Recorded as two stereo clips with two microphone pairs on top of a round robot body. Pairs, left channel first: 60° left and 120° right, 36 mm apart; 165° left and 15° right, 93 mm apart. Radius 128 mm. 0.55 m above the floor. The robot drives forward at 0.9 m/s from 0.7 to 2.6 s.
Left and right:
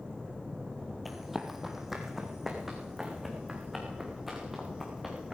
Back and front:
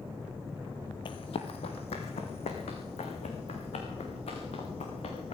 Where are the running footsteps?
140° left, 0.9 m; by 5.3 s 150° left, 4.5 m.